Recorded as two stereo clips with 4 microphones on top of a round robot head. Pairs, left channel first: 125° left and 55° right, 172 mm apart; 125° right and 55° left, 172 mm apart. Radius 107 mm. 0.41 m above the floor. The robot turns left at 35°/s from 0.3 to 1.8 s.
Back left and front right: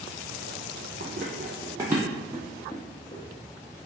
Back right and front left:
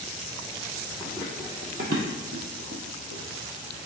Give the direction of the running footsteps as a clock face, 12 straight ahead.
1 o'clock.